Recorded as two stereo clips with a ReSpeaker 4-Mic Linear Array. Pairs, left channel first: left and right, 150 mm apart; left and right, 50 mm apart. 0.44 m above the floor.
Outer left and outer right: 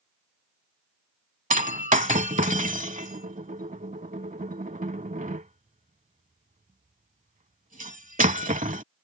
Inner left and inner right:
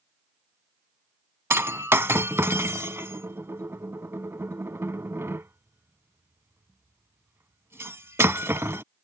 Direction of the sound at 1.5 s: 60° right (ahead or behind).